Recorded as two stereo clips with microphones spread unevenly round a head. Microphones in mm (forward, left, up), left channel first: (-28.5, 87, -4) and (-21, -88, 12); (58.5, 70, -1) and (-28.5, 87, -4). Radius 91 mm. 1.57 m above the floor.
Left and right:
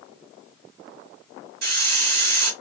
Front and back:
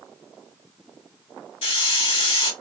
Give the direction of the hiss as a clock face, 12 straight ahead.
2 o'clock.